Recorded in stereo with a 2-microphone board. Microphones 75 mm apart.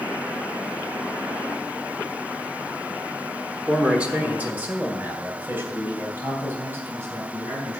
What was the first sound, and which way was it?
A man speaking, 10° right (ahead or behind).